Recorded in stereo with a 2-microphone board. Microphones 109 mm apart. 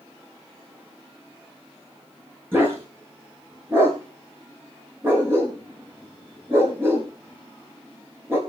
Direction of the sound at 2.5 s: 20° right (ahead or behind).